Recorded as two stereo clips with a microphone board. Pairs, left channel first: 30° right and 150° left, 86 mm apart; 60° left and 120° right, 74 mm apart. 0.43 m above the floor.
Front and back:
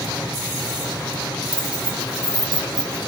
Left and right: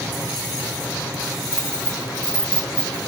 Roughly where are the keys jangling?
Ahead right.